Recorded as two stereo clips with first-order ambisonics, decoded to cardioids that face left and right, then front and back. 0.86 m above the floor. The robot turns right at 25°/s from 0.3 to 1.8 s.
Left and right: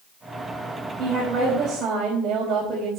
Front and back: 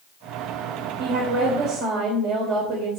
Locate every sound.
1.0 s a woman speaking: 165° right, 3 m; by 3.0 s 145° right, 3 m